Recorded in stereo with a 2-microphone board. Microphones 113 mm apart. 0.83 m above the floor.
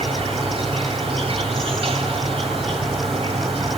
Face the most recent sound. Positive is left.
turn(degrees=-55)  # may be behind; listen again after turning